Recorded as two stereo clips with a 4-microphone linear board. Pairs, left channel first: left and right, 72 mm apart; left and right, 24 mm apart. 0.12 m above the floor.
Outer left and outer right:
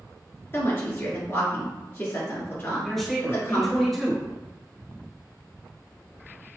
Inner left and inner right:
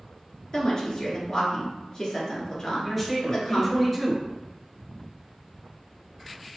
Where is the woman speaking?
35° left (ahead or behind), 1.3 m.